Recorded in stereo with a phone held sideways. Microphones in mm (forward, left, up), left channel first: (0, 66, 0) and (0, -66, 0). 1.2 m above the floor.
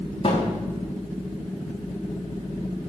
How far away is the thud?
About 4.5 m.